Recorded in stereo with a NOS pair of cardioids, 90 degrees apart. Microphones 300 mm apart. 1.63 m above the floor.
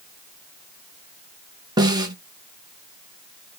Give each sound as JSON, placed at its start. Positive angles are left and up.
{"t": 1.8, "sound": "a snare drum", "azimuth_deg": -15, "distance_m": 1.5}